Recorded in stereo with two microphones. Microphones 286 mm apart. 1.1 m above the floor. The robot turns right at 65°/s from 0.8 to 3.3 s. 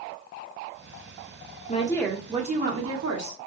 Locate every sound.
1.7 s a woman speaking: 155° left, 1.0 m; by 3.4 s 100° right, 1.0 m